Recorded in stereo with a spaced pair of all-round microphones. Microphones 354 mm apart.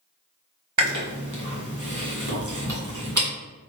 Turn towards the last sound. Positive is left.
turn(degrees=-55)  # may be behind; listen again after turning